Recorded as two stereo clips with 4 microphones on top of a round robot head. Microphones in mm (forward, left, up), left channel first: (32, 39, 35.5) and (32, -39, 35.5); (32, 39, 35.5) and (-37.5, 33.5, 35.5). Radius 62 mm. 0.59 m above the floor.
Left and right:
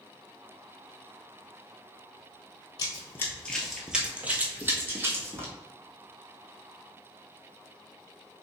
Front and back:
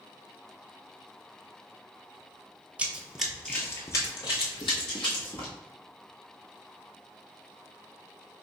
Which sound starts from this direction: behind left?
Running footsteps, at 2.8 s.